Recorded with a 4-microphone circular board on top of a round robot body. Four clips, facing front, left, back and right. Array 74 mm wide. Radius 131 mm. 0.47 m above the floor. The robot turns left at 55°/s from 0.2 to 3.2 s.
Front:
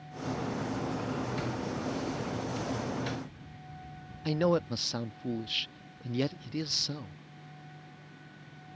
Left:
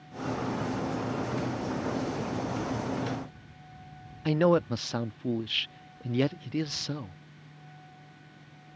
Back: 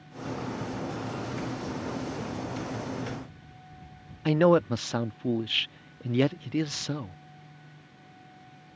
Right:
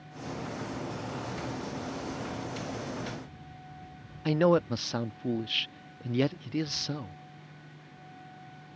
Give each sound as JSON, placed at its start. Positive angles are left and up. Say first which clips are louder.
{"t": 4.2, "sound": "a man speaking", "louder": "even, back 7 dB", "azimuth_deg": 175}